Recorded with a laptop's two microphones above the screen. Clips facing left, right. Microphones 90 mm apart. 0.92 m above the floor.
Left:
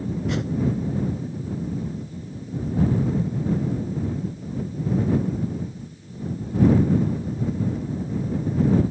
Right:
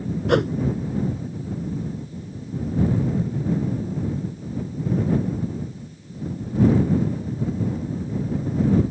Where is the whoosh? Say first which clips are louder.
Right 11 dB; 60° right (ahead or behind).